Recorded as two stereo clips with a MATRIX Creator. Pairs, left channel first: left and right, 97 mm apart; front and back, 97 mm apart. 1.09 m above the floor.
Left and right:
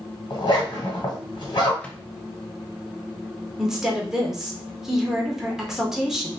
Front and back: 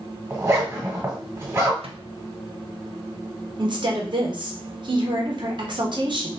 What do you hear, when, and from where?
0.3 s a zipper: 120° left, 1.7 m
1.8 s a microwave: 165° left, 0.6 m
3.6 s a woman speaking: 175° right, 1.0 m